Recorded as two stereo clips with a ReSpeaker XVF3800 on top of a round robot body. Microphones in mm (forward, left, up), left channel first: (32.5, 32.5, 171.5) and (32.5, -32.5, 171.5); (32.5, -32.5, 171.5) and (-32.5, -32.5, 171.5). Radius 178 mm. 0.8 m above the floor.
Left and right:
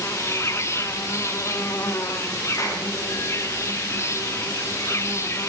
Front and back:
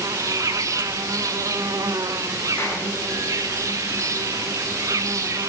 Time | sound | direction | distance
0.0 | an insect | 140° left | 0.8 m
2.6 | a clap | 55° left | 4 m